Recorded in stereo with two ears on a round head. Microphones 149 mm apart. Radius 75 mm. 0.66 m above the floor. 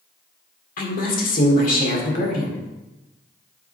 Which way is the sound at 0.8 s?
50° left (ahead or behind).